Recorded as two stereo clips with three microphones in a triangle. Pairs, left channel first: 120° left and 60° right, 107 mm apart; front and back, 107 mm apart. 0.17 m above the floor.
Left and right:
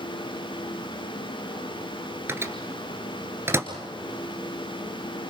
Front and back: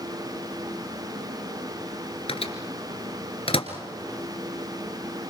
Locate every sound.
2.3 s a microwave: 5° left, 2.0 m